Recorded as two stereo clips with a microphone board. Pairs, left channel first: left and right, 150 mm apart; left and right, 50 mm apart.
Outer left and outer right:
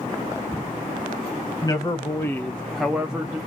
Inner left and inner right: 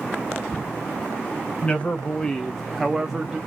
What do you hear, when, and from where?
1.6 s a man speaking: 25° left (ahead or behind), 0.9 m; by 3.4 s 10° right (ahead or behind), 0.9 m